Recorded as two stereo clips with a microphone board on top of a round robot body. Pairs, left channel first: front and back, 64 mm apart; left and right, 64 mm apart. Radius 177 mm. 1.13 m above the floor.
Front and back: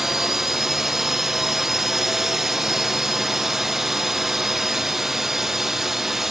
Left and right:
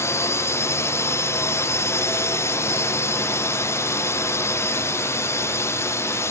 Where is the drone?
95° left.